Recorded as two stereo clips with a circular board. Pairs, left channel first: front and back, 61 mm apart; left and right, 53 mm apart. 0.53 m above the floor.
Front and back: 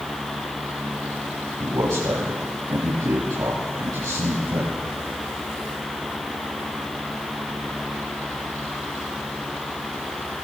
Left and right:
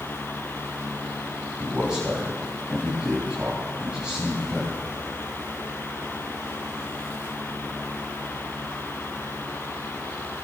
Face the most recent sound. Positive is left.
turn(degrees=-160)